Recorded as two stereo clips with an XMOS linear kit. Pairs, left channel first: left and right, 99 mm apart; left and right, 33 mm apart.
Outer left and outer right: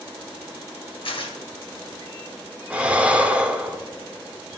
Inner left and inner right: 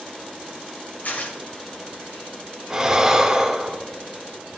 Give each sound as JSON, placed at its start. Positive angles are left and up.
{"t": 1.0, "sound": "tearing paper", "side_deg": 65, "distance_m": 1.5}
{"t": 2.7, "sound": "breathing", "side_deg": -10, "distance_m": 0.9}